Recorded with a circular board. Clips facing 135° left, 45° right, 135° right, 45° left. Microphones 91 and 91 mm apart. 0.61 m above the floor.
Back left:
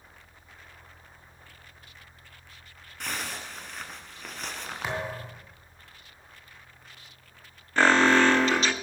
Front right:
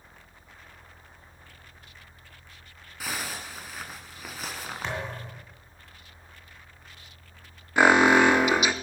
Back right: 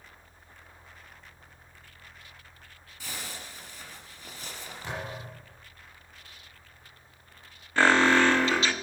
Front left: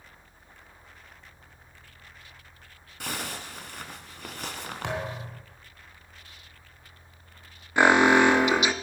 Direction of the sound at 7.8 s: 5° left.